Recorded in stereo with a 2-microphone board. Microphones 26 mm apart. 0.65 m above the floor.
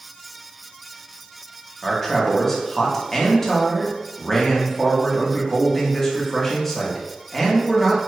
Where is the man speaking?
10° left (ahead or behind), 0.9 m.